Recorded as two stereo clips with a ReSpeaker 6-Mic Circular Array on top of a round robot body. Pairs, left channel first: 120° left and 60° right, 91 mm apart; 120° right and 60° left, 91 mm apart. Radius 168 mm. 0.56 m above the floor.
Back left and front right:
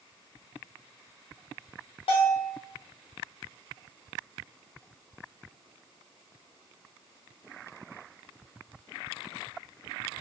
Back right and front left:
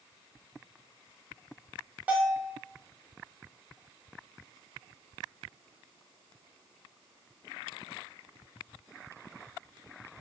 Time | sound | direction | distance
2.1 | a bell | 135° left | 0.6 m